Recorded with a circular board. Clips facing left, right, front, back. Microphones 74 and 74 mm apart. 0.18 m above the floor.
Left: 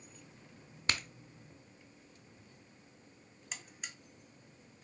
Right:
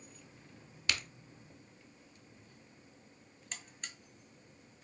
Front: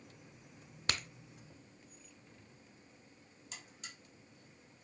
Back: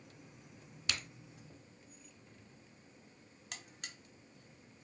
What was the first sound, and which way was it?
A crack, 35° left.